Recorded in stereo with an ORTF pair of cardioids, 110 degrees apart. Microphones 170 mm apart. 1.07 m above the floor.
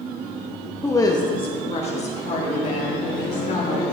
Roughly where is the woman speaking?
Ahead.